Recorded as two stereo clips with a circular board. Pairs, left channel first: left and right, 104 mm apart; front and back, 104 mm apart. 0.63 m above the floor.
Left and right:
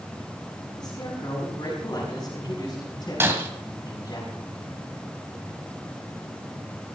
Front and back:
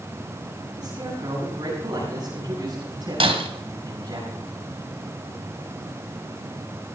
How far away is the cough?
I don't hear a cough.